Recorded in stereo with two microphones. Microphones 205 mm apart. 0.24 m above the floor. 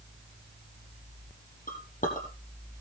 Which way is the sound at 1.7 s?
40° left (ahead or behind).